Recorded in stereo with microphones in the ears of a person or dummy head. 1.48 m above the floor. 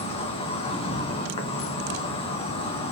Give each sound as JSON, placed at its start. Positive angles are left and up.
{"t": 0.0, "sound": "an insect", "side_deg": 25, "distance_m": 1.5}